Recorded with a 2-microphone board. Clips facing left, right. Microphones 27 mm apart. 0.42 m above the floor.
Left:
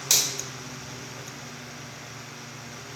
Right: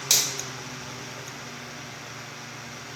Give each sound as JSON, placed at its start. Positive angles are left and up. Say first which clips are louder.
{"t": 0.1, "sound": "a finger snap", "louder": "even", "side_deg": -10, "distance_m": 1.4}